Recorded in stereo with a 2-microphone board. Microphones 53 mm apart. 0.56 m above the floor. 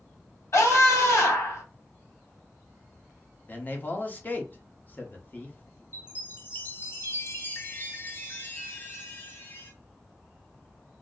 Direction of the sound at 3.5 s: 35° left (ahead or behind).